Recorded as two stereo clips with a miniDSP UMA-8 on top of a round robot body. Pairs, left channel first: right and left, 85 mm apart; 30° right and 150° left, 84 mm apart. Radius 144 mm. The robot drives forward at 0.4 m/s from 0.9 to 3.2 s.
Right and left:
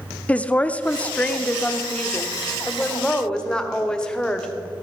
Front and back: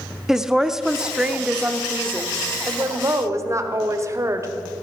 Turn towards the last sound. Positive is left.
turn(degrees=-170)